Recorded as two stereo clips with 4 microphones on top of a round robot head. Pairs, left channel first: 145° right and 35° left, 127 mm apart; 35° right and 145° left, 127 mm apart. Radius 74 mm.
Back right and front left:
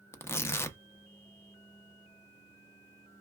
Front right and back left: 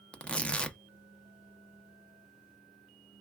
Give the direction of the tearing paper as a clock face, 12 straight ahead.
4 o'clock.